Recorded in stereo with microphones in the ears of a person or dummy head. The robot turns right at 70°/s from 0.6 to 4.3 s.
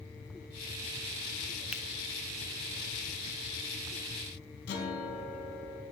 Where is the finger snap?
10° right (ahead or behind), 0.5 m; by 1.8 s centre (ahead or behind), 0.5 m.